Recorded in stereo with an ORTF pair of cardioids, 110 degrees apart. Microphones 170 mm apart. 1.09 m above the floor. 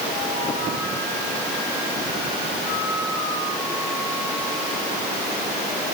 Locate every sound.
Only background noise.